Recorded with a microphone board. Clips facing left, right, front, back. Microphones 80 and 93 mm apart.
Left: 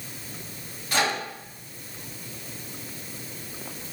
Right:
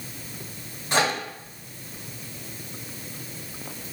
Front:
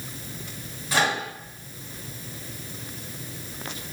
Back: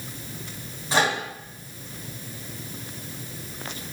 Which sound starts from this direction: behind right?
A microwave, at 0.9 s.